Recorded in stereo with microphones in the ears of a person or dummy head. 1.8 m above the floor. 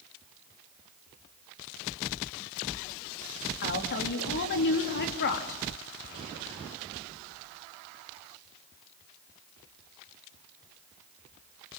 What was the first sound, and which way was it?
A woman speaking, 55° left (ahead or behind).